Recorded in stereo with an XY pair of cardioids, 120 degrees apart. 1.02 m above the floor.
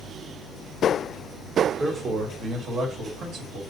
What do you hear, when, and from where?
1.8 s a man speaking: 30° right, 1.1 m; by 3.6 s 75° right, 1.9 m